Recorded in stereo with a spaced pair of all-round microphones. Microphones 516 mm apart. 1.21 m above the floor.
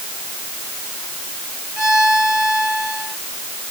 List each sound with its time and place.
1.8 s a violin: 55° right (ahead or behind)